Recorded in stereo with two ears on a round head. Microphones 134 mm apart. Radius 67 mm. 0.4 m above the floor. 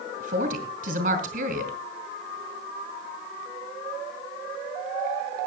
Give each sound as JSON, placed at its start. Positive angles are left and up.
{"t": 0.2, "sound": "a woman speaking", "side_deg": -60, "distance_m": 2.0}